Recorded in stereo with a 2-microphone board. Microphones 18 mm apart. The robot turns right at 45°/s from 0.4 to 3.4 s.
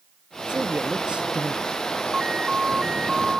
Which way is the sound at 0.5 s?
120° right.